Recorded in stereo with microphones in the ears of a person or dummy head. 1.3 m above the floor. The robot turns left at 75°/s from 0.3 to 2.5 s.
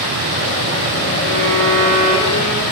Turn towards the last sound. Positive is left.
turn(degrees=-175)